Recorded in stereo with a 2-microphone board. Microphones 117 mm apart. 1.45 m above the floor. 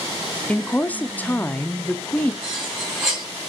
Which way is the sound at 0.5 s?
15° left (ahead or behind).